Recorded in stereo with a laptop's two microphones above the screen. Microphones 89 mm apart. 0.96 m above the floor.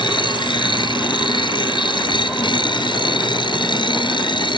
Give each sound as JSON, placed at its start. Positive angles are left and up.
{"t": 0.0, "sound": "a machine running", "side_deg": 65}